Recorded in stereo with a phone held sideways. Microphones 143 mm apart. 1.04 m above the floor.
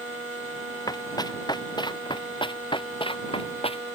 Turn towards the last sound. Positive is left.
turn(degrees=45)  # may be behind; listen again after turning